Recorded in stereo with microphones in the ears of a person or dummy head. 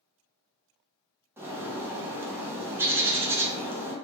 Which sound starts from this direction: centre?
A bird, at 1.4 s.